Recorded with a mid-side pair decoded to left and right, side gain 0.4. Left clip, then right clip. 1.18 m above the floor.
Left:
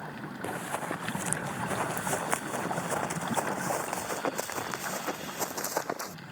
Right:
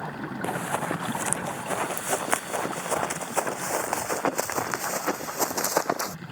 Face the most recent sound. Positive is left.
turn(degrees=-55)